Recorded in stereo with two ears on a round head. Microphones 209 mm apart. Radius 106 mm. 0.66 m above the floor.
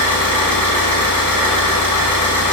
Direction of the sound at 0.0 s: 5° left (ahead or behind).